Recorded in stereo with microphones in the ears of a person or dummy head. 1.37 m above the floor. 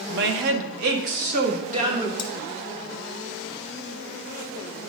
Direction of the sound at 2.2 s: 55° left (ahead or behind).